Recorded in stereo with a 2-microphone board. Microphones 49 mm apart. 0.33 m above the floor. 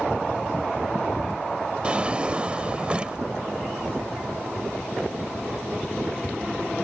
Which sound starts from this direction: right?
A drawer, at 1.8 s.